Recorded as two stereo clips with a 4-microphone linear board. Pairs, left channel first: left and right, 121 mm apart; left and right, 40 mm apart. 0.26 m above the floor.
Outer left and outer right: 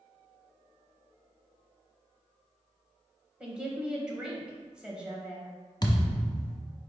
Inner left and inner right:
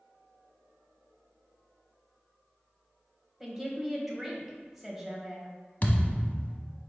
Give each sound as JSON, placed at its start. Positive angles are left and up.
{"t": 3.4, "sound": "a woman speaking", "side_deg": -5, "distance_m": 1.0}
{"t": 5.8, "sound": "a thud", "side_deg": 35, "distance_m": 0.7}